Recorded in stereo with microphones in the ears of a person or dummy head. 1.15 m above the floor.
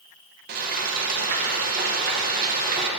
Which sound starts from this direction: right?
Frying, at 0.5 s.